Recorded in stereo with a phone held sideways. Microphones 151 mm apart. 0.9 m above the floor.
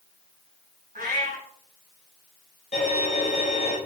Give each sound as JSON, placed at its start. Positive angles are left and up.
{"t": 0.9, "sound": "a cat meowing", "side_deg": -70, "distance_m": 3.0}
{"t": 2.7, "sound": "a violin", "side_deg": 55, "distance_m": 4.5}